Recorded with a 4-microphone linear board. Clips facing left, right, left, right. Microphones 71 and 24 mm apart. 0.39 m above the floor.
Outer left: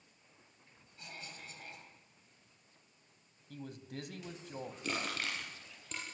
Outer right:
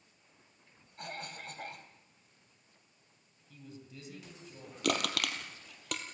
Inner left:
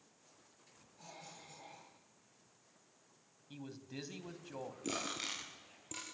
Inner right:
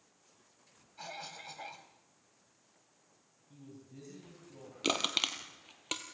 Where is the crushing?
85° right, 2.5 m.